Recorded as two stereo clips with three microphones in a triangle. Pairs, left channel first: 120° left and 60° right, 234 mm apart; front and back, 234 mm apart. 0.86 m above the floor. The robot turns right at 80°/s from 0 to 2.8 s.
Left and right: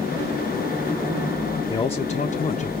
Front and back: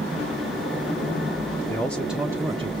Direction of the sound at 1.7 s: 60° left.